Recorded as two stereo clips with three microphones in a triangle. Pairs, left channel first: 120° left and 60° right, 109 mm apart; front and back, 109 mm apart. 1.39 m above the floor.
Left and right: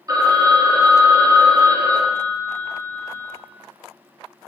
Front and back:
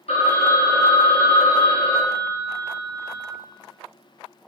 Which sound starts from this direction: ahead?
A phone ringing, at 0.1 s.